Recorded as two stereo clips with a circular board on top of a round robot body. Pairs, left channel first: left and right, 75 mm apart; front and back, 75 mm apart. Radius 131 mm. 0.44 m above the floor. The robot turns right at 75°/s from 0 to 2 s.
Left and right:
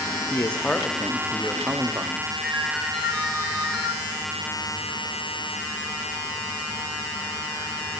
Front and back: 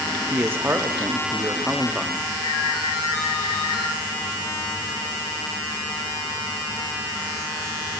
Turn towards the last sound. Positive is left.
turn(degrees=-5)